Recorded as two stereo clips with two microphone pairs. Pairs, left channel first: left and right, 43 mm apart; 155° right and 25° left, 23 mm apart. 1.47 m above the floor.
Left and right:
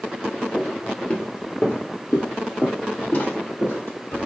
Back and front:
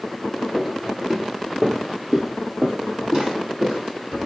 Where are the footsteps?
55° left, 1.5 m; by 4.3 s 80° left, 3.5 m.